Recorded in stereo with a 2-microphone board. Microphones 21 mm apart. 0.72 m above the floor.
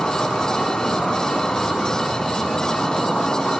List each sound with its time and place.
0.0 s an insect: 65° left (ahead or behind), 8.5 m